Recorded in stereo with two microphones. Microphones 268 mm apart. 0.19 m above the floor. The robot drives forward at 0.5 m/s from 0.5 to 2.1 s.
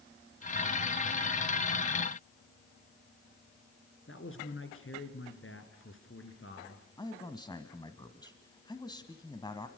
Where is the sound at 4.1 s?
50° left (ahead or behind), 3 m.